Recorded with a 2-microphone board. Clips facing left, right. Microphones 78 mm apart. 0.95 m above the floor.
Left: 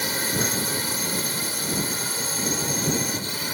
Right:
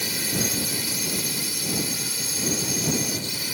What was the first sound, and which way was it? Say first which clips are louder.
A drone: left 2 dB; 40° left (ahead or behind).